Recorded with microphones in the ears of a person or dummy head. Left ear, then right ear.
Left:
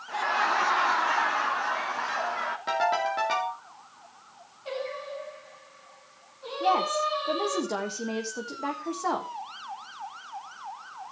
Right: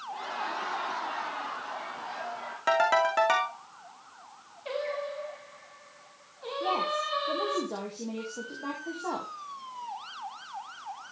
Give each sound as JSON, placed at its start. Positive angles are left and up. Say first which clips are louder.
{"t": 0.1, "sound": "laughter", "louder": "left 9 dB", "side_deg": 55, "distance_m": 1.4}
{"t": 2.7, "sound": "a ringtone", "louder": "right 3 dB", "side_deg": -40, "distance_m": 2.5}
{"t": 4.7, "sound": "singing", "louder": "right 1 dB", "side_deg": -25, "distance_m": 3.5}
{"t": 6.6, "sound": "a woman speaking", "louder": "left 5 dB", "side_deg": 70, "distance_m": 1.8}